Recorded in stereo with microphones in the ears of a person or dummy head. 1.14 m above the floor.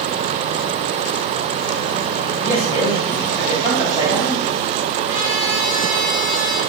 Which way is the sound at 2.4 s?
10° right (ahead or behind).